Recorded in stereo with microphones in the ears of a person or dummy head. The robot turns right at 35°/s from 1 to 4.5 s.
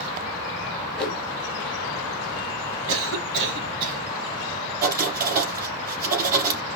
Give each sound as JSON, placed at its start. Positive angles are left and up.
{"t": 1.0, "sound": "a whoosh", "side_deg": 5, "distance_m": 2.0}
{"t": 2.9, "sound": "a cough", "azimuth_deg": -85, "distance_m": 1.8}
{"t": 4.8, "sound": "writing", "side_deg": -50, "distance_m": 4.0}